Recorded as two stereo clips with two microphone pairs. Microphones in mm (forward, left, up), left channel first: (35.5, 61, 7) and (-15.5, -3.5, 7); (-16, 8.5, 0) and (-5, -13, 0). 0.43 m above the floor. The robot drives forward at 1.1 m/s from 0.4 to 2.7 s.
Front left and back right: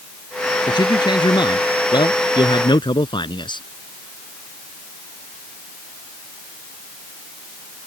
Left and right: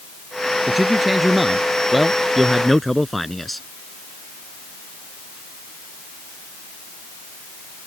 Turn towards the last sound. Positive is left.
turn(degrees=35)